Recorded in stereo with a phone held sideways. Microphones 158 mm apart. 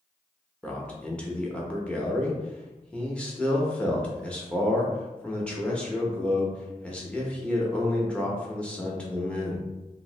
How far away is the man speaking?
About 0.7 m.